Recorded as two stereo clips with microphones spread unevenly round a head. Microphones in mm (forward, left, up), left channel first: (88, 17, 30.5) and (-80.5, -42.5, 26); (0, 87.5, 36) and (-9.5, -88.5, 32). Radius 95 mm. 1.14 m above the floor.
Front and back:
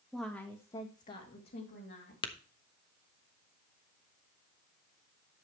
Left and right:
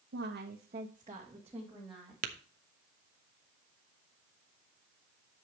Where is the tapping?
45° right, 1.2 m.